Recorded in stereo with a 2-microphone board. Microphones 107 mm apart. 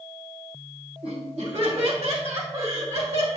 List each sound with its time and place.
1.0 s laughter: 75° right (ahead or behind), 3 m; by 3.4 s 70° right (ahead or behind), 2.5 m